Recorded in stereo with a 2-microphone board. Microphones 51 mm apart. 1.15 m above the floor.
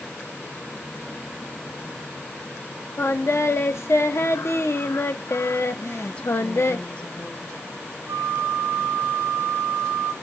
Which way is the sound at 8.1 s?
60° right (ahead or behind).